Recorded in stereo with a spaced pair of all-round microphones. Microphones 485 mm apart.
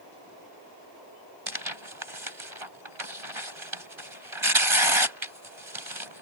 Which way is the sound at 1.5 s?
75° right (ahead or behind).